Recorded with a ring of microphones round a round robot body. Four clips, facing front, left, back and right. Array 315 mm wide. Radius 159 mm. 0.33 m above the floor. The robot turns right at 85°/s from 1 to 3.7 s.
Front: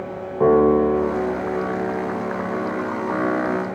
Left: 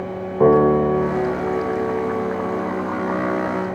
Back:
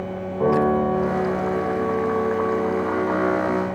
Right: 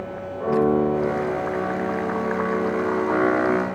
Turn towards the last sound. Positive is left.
turn(degrees=-60)